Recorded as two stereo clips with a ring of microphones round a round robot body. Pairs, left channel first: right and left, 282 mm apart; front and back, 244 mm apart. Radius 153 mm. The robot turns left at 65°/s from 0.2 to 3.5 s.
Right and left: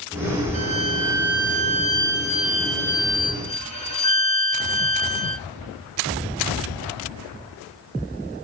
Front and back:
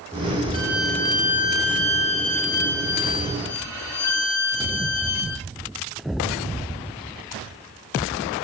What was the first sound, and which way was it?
A violin, 110° left.